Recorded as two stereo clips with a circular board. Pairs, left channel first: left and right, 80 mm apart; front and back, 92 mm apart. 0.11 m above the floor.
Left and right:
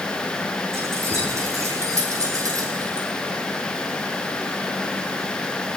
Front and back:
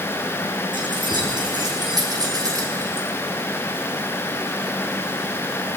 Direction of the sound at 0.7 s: 145° right.